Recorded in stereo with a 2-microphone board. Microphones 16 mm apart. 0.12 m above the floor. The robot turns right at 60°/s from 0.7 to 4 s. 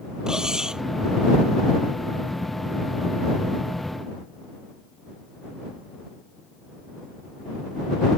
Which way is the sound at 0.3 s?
50° right (ahead or behind).